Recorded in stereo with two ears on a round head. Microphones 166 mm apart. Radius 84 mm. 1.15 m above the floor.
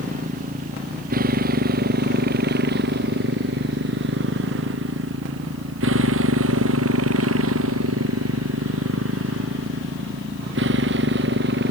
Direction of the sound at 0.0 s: 45° right (ahead or behind).